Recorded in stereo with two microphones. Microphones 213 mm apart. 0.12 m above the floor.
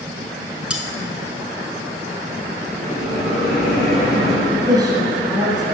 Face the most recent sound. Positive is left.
turn(degrees=-20)  # may be behind; listen again after turning